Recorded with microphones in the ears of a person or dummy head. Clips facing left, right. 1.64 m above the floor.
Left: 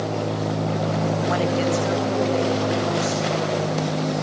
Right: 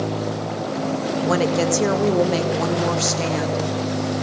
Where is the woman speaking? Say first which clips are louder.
Right 4 dB; 50° right (ahead or behind), 1.0 m; by 3.6 s 80° right, 1.7 m.